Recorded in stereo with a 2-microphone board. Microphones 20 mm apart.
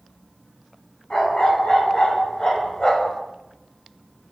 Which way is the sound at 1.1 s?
35° left (ahead or behind).